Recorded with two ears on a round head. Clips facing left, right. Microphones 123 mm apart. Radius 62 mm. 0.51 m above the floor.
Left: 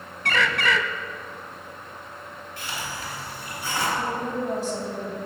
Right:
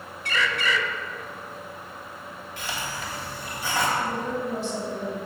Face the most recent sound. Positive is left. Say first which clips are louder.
# even
turn(degrees=35)  # may be behind; listen again after turning